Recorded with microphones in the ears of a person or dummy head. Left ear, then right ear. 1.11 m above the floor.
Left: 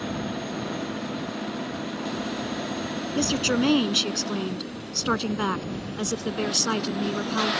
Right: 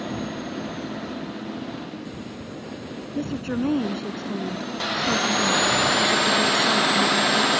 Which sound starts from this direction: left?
A woman speaking, at 3.1 s.